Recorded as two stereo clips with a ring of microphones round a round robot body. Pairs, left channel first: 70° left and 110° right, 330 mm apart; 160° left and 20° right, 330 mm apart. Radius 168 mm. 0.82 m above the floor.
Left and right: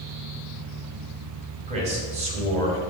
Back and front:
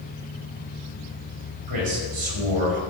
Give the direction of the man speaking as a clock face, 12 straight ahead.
1 o'clock.